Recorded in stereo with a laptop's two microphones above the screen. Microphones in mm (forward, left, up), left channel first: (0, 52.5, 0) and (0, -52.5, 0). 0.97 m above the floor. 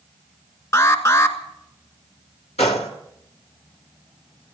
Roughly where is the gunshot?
Left.